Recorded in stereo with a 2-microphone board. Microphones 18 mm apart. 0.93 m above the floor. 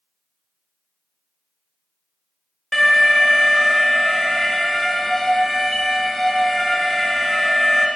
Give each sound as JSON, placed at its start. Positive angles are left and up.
{"t": 2.7, "sound": "an alarm", "side_deg": 15, "distance_m": 1.5}